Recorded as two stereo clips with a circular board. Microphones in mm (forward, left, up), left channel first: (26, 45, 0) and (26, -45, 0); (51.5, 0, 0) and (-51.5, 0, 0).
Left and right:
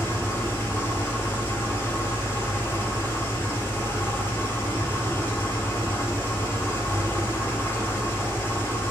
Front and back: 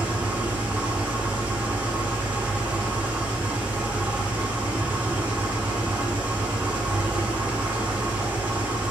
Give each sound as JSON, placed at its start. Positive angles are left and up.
{"t": 0.0, "sound": "an engine running", "azimuth_deg": 120, "distance_m": 1.1}